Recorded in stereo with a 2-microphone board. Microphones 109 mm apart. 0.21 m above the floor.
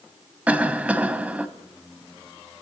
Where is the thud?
I don't hear a thud.